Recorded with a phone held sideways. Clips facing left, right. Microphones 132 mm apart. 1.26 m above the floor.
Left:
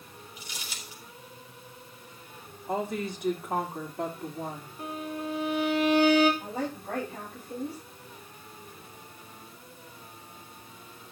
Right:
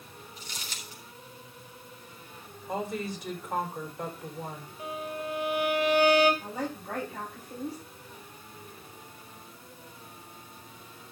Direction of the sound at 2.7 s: 70° left (ahead or behind).